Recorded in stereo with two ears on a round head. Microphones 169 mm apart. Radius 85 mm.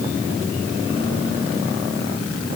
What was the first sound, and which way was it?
Only background noise.